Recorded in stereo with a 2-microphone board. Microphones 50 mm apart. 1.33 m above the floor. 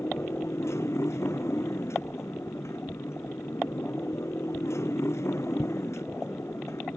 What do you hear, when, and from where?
0.0 s a motorcycle: 65° left (ahead or behind)